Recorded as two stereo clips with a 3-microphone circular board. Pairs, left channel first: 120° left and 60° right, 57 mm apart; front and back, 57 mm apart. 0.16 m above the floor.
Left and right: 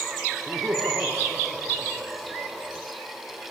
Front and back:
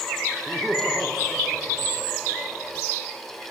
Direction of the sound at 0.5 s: 95° right.